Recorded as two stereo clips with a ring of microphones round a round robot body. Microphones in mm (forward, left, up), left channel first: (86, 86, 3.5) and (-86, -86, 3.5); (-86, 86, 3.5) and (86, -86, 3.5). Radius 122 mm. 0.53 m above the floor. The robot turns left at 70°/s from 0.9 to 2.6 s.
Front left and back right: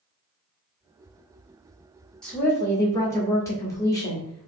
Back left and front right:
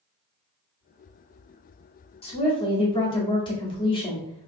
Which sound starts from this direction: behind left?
A woman speaking, at 2.2 s.